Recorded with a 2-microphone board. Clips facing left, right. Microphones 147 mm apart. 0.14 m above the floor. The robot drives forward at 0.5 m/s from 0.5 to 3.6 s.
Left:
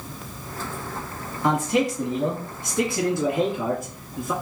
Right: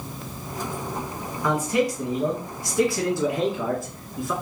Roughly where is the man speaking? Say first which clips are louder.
Left 1 dB; left.